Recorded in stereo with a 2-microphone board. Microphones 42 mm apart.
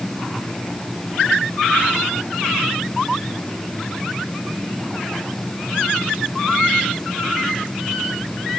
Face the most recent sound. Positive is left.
No sound to turn to.